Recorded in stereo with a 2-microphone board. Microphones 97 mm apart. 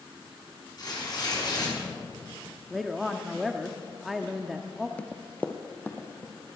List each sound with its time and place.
0.8 s tearing paper: 45° left (ahead or behind), 5.5 m
2.7 s a woman speaking: centre (ahead or behind), 0.6 m
5.0 s running footsteps: 10° left (ahead or behind), 0.6 m; by 6.6 s 20° left (ahead or behind), 2 m